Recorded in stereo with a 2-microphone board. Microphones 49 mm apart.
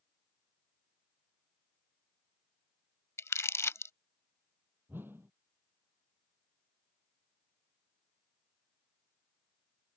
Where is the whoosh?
45° right (ahead or behind).